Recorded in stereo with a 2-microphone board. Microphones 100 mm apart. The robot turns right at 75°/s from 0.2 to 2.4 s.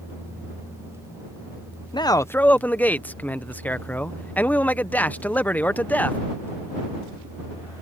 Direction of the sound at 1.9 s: 130° left.